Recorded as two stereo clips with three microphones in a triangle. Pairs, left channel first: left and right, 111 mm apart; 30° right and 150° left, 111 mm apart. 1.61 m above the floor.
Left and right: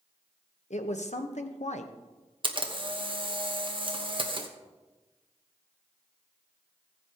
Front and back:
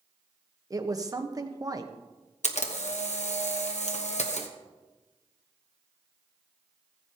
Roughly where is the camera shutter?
Ahead right.